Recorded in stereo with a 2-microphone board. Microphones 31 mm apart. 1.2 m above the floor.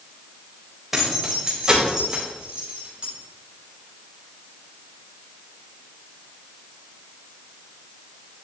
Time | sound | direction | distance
0.9 | keys jangling | 5° right (ahead or behind) | 3.5 m